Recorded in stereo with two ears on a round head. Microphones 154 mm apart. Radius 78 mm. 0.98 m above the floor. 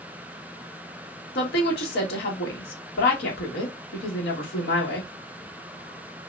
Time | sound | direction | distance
1.4 | a woman speaking | 60° left (ahead or behind) | 1.6 m